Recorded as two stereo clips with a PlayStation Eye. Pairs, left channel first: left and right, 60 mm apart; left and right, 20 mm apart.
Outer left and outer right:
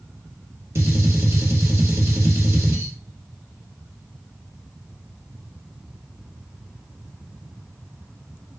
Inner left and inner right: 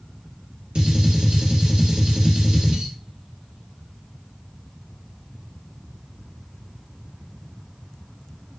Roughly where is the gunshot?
Right.